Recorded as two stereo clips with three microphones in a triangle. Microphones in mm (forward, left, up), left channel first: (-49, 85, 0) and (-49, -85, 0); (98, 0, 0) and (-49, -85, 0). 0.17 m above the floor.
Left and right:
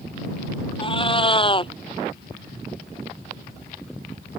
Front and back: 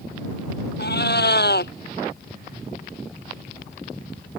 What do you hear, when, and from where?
0.8 s a cat meowing: 30° left